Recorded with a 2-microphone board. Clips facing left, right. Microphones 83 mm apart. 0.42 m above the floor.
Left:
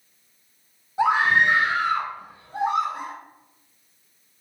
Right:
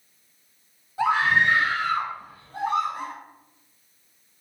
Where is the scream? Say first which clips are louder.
Left 2 dB; 20° left (ahead or behind), 1.5 m.